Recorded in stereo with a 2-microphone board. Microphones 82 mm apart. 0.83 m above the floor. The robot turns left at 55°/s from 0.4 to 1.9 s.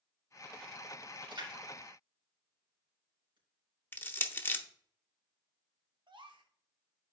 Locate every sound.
1.2 s a splash: 70° right (ahead or behind), 3 m
3.9 s crushing: 25° left (ahead or behind), 0.7 m
6.1 s a gasp: 75° right (ahead or behind), 1.1 m